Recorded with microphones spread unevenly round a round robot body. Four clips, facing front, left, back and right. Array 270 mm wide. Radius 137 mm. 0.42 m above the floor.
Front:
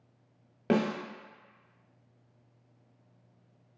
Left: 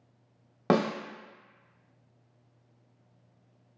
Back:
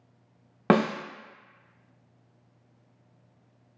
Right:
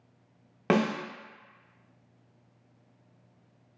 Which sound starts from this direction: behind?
A snare drum, at 0.7 s.